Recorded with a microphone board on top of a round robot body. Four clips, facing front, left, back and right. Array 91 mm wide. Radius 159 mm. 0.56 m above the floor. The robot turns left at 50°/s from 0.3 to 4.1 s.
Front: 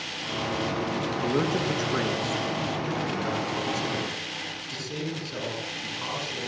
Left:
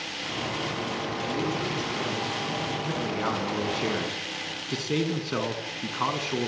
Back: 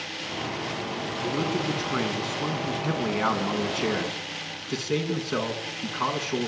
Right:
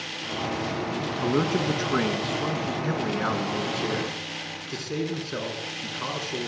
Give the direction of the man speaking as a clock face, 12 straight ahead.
3 o'clock.